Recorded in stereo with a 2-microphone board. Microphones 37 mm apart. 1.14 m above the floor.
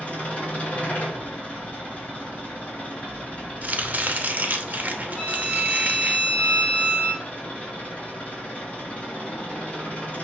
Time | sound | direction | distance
0.0 | an engine running | 40° left (ahead or behind) | 2 m
3.6 | chopping | 50° right (ahead or behind) | 0.6 m
5.2 | a violin | 30° left (ahead or behind) | 1.1 m